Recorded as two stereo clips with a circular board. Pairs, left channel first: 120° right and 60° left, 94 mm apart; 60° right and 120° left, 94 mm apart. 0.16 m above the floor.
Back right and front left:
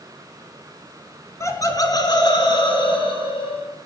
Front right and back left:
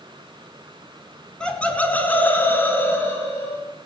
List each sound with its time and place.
1.4 s laughter: 135° right, 1.6 m; by 3.6 s 125° right, 3.5 m